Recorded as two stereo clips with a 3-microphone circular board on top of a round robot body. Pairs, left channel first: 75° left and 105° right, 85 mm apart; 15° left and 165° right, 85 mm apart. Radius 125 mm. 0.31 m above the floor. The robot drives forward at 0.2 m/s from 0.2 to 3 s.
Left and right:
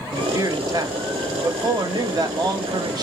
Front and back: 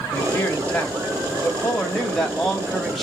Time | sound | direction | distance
0.1 | a man speaking | 55° right | 2 m